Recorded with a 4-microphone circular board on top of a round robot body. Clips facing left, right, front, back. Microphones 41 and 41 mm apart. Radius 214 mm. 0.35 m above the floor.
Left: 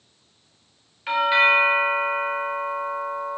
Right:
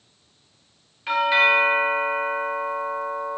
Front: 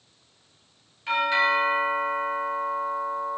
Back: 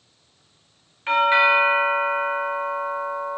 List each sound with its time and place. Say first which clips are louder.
1.1 s a doorbell: even, back 5 dB; 165° left, 1.4 m